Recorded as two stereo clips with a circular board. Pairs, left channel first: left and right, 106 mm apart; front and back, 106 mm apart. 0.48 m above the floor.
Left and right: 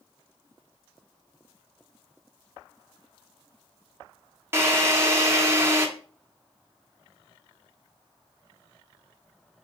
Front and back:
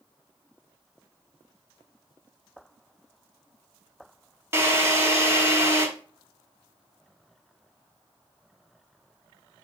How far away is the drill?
About 1.0 m.